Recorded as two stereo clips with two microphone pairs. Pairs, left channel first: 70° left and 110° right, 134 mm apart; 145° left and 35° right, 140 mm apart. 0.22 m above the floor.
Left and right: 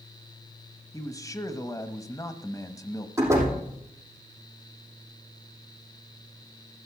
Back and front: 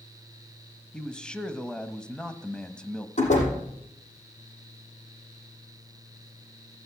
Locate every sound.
0.9 s a man speaking: 75° left, 1.0 m
3.2 s a door slam: straight behind, 5.5 m